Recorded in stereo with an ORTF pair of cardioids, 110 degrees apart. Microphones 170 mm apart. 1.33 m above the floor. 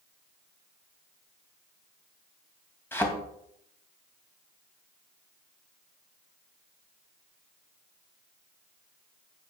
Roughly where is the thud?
Ahead.